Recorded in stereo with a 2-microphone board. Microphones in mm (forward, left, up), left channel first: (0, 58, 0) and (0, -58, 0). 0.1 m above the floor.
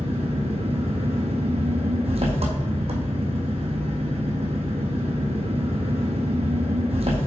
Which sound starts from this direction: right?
An engine running, at 0.0 s.